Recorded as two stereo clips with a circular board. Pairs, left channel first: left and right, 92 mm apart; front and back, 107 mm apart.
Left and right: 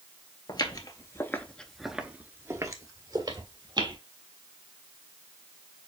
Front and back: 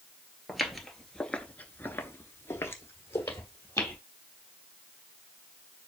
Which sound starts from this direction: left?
Footsteps, at 0.5 s.